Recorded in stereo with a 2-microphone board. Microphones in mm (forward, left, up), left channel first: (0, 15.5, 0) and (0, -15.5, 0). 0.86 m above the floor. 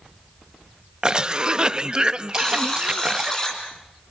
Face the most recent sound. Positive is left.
turn(degrees=25)  # may be behind; listen again after turning